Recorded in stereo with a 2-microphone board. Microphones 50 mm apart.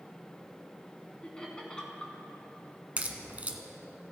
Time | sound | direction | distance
1.2 | laughter | 15° left (ahead or behind) | 1.7 m
3.0 | a crack | 30° right (ahead or behind) | 0.7 m